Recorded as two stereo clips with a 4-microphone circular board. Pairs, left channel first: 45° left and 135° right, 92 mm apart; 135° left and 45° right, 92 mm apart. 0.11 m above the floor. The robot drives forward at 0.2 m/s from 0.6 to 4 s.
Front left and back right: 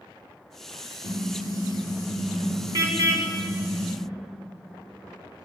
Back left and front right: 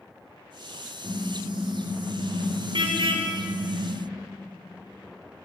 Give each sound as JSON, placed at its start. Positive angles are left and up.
{"t": 1.0, "sound": "a car horn", "azimuth_deg": -75, "distance_m": 7.0}